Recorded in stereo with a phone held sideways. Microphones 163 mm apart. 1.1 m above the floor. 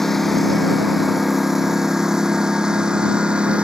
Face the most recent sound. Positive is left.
turn(degrees=-5)  # may be behind; listen again after turning